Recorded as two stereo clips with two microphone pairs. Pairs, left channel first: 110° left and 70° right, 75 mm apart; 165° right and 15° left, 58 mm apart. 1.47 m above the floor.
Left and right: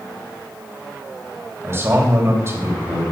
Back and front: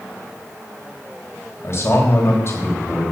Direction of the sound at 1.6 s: 120° right.